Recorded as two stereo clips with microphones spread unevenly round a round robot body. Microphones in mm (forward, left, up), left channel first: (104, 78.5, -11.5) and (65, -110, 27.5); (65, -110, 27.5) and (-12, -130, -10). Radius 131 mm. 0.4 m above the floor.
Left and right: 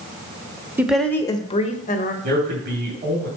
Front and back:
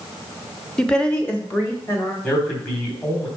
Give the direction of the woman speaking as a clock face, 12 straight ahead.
7 o'clock.